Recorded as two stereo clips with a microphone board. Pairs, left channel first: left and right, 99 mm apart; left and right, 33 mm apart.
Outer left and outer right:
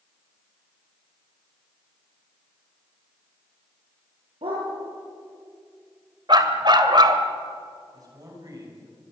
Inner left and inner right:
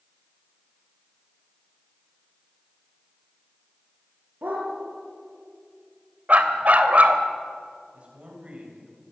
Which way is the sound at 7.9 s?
40° right (ahead or behind).